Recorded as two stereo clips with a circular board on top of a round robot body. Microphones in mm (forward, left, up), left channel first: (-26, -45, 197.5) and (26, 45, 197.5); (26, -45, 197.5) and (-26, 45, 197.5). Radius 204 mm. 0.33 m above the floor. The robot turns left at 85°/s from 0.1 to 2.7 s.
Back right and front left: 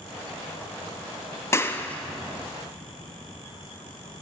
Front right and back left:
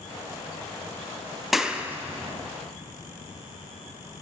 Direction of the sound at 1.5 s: 150° right.